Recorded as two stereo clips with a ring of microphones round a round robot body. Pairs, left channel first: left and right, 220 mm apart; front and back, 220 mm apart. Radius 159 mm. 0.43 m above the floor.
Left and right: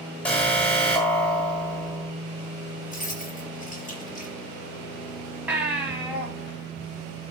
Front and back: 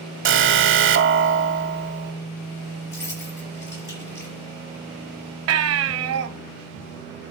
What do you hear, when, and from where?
0.2 s an alarm: 175° left, 1.2 m
2.9 s keys jangling: 35° left, 5.5 m
5.5 s a baby crying: 175° right, 1.2 m